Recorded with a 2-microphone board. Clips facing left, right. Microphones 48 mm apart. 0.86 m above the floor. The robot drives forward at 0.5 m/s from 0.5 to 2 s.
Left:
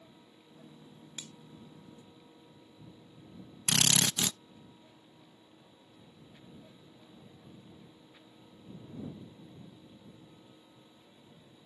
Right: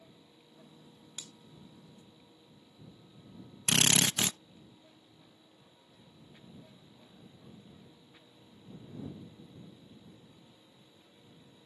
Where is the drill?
30° right (ahead or behind).